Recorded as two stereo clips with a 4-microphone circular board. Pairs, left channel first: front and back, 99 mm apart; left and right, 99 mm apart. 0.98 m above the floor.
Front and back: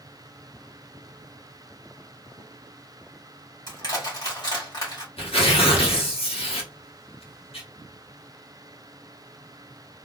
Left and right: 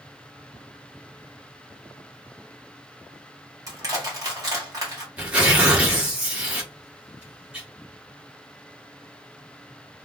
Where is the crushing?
40° right, 1.5 m.